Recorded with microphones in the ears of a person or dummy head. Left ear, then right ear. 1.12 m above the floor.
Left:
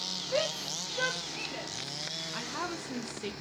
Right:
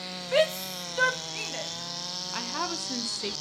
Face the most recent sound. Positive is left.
turn(degrees=-20)  # may be behind; listen again after turning